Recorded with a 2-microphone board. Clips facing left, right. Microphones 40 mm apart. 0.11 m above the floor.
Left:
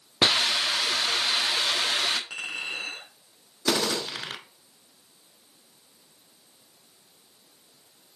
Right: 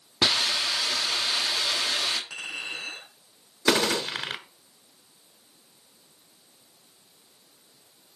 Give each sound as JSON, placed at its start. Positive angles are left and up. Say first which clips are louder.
{"t": 0.2, "sound": "a hiss", "louder": "left 2 dB", "side_deg": 40, "distance_m": 0.9}
{"t": 2.3, "sound": "a clink", "louder": "left 2 dB", "side_deg": 40, "distance_m": 3.5}
{"t": 3.7, "sound": "a gunshot", "louder": "right 3 dB", "side_deg": -25, "distance_m": 0.8}